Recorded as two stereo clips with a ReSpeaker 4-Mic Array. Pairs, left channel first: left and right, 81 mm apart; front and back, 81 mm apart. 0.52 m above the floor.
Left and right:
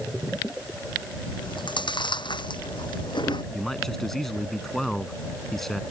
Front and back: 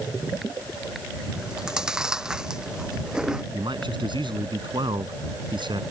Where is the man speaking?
175° left.